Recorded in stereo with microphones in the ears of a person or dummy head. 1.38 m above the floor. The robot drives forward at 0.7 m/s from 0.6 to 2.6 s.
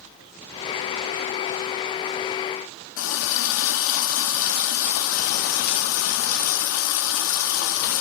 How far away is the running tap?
About 1.7 m.